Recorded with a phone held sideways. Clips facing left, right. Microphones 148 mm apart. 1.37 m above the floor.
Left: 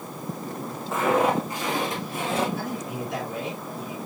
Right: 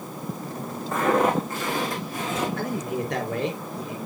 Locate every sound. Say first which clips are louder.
0.9 s footsteps: right 1 dB; 5° left (ahead or behind), 3.5 m; by 2.5 s 30° left (ahead or behind), 3.5 m
2.6 s a man speaking: right 3 dB; 60° right (ahead or behind), 4 m